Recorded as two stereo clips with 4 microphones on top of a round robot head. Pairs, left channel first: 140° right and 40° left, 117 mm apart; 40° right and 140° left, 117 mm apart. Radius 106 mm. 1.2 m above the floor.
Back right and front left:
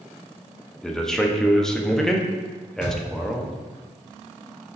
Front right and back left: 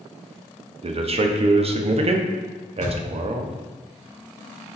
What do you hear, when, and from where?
0.8 s a man speaking: 135° left, 0.6 m
2.8 s a thud: 10° right, 0.9 m